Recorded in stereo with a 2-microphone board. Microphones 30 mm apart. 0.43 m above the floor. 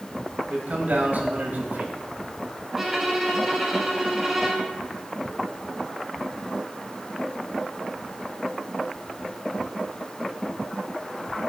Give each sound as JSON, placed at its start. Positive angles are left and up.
{"t": 0.5, "sound": "a man speaking", "side_deg": -65, "distance_m": 1.8}
{"t": 2.8, "sound": "a violin", "side_deg": -15, "distance_m": 2.0}